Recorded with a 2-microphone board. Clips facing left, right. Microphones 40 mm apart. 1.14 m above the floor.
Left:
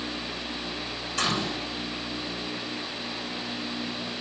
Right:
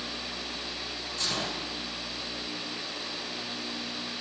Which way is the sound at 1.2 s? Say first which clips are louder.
Left 6 dB; 70° left (ahead or behind).